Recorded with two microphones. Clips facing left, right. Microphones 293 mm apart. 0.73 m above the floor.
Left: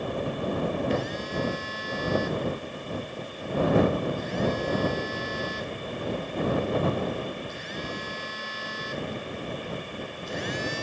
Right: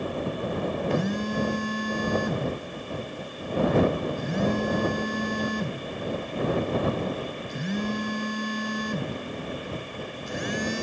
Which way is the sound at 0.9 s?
60° right (ahead or behind).